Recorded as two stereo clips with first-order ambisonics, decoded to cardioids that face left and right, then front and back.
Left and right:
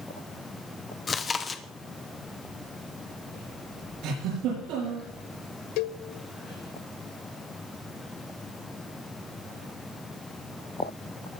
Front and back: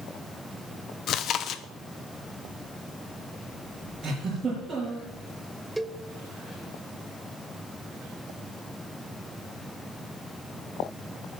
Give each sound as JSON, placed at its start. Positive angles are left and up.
{"t": 1.1, "sound": "chewing", "azimuth_deg": 25, "distance_m": 0.7}
{"t": 4.0, "sound": "a giggle", "azimuth_deg": -115, "distance_m": 8.0}
{"t": 5.8, "sound": "a cowbell", "azimuth_deg": 100, "distance_m": 0.5}